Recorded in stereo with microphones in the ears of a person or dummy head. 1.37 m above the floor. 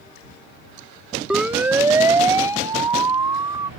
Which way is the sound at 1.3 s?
5° right (ahead or behind).